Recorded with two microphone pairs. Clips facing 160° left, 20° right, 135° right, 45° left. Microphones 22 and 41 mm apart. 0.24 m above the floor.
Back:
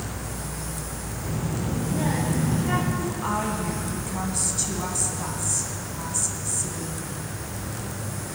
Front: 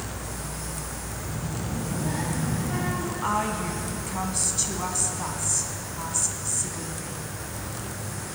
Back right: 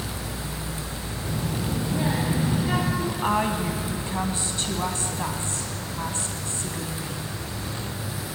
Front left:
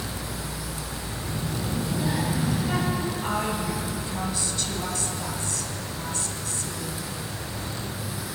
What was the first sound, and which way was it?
A child speaking, 175° left.